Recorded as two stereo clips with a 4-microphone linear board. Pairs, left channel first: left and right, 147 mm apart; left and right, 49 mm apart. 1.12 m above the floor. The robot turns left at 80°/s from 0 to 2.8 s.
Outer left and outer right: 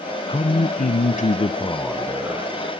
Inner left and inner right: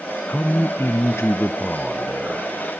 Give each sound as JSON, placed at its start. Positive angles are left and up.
{"t": 0.3, "sound": "a man speaking", "azimuth_deg": 140, "distance_m": 0.5}